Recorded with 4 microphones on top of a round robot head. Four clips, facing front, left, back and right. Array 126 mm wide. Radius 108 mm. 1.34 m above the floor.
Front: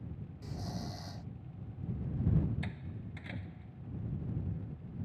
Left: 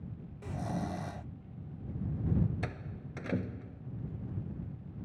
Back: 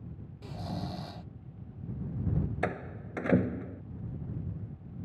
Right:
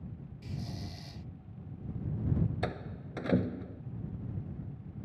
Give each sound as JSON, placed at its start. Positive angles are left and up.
{"t": 0.4, "sound": "snoring", "azimuth_deg": 115}
{"t": 2.6, "sound": "a door slam", "azimuth_deg": -160}